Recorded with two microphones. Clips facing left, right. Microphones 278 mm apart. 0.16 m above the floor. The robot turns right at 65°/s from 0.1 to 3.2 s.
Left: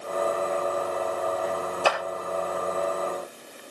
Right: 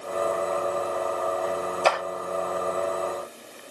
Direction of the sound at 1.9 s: 5° left (ahead or behind).